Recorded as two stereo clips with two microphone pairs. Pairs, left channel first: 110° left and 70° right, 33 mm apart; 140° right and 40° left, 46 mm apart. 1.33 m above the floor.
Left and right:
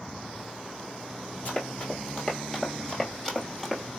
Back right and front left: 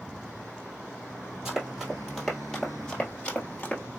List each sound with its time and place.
1.4 s running footsteps: 115° left, 1.9 m; by 3.8 s 175° right, 1.6 m